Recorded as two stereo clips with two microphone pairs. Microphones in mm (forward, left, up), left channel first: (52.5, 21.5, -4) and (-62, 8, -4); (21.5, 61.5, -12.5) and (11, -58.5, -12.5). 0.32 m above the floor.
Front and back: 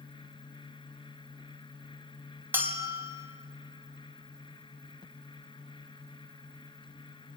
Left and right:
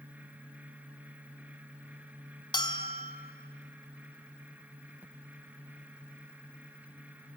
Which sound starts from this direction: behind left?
A bell, at 2.5 s.